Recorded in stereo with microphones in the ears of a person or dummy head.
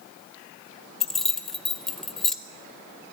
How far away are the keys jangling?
About 0.8 m.